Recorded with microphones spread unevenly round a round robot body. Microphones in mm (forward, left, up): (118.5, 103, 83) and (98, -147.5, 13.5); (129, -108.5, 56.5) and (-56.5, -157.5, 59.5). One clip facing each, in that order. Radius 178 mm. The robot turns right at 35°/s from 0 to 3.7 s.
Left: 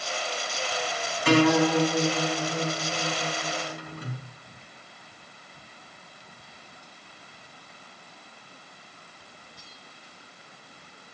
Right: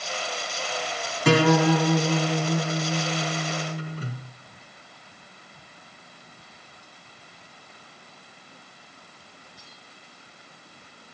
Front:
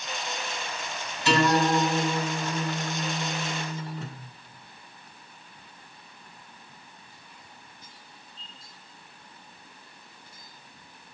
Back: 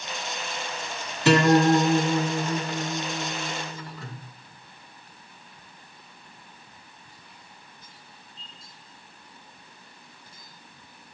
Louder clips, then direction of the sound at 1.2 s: Right 1 dB, back 5 dB; 135° right.